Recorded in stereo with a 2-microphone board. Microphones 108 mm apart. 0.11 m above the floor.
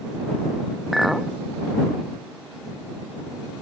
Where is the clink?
5° right (ahead or behind).